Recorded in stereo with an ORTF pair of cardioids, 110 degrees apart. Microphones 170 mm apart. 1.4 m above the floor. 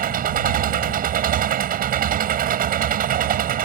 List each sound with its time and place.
0.0 s an engine running: 55° right